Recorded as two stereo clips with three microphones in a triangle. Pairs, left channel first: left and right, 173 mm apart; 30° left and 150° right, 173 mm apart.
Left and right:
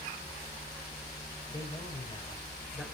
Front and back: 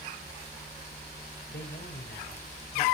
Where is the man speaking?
30° left, 5.5 m.